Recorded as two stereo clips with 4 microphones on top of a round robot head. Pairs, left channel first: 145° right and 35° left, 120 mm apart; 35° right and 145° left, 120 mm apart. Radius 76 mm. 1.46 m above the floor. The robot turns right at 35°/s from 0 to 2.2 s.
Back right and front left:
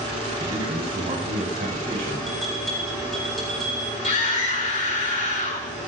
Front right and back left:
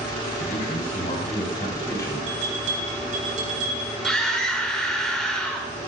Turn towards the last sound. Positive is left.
turn(degrees=-120)